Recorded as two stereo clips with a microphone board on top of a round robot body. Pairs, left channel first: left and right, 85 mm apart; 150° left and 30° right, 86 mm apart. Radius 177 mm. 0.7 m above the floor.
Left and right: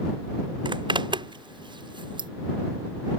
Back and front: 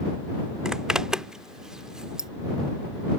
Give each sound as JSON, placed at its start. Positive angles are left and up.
{"t": 0.7, "sound": "a zipper", "azimuth_deg": -115}